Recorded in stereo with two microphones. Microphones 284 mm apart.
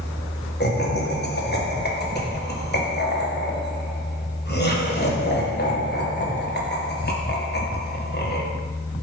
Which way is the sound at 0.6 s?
35° left (ahead or behind).